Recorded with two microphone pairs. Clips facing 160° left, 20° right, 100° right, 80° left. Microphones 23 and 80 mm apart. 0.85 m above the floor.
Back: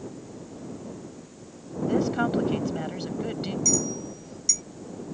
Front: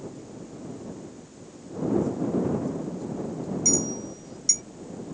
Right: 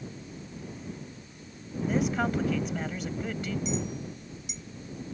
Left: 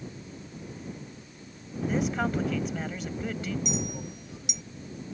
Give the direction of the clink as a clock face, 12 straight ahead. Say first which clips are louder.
Front 1 dB, even; 10 o'clock.